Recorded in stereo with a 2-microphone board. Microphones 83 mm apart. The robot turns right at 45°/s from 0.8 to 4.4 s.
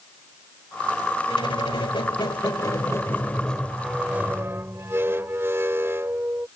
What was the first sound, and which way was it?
A squeak, 70° left.